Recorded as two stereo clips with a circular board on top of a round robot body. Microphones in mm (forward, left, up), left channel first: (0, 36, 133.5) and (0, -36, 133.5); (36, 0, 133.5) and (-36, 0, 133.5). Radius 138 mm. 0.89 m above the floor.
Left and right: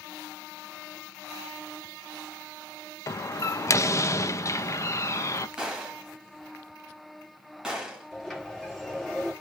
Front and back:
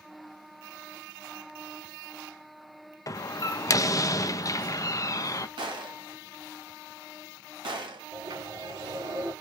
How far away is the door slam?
About 0.6 m.